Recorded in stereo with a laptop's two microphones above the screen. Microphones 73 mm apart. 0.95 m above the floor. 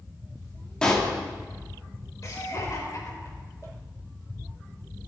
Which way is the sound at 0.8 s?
10° left (ahead or behind).